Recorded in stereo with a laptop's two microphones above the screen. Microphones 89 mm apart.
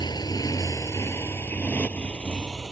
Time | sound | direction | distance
0.0 | a motorcycle | 50° left (ahead or behind) | ?